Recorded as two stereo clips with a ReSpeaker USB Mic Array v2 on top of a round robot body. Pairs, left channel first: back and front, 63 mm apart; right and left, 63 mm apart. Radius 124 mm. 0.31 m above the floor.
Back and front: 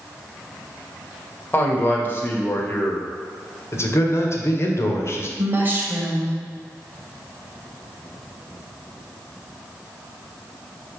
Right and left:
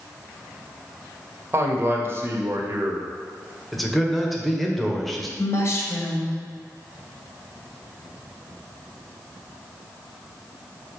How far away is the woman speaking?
About 2 m.